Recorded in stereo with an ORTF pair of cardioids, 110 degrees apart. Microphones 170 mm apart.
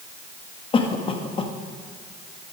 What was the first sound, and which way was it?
A cough, 35° left.